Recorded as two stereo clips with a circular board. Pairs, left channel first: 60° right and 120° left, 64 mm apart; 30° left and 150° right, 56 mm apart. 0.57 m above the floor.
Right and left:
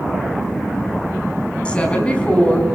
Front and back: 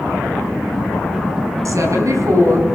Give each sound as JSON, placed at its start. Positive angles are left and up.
{"t": 1.6, "sound": "a woman speaking", "azimuth_deg": -130, "distance_m": 5.0}